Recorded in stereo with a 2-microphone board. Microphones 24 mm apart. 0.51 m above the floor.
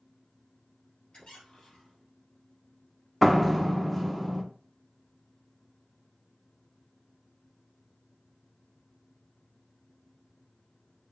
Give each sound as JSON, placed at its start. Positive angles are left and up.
{"t": 1.1, "sound": "a squeak", "side_deg": 45, "distance_m": 3.0}
{"t": 3.2, "sound": "a door slam", "side_deg": 5, "distance_m": 0.7}